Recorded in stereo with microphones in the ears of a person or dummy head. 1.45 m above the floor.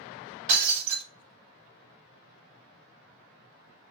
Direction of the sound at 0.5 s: 30° right (ahead or behind).